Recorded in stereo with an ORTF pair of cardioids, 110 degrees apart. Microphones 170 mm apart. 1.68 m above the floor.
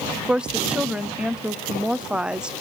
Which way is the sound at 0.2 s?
5° right.